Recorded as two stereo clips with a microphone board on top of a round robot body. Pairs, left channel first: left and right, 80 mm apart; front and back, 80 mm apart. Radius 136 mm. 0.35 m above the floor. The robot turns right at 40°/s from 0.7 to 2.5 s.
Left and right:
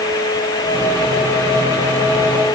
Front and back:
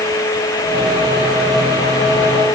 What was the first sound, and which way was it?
Only background noise.